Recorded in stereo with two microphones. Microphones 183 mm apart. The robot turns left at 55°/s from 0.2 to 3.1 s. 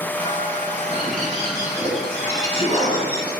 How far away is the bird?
About 1.8 m.